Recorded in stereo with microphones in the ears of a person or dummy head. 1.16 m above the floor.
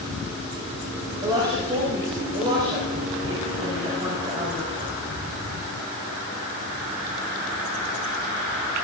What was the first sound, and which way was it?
A woman speaking, 20° right (ahead or behind).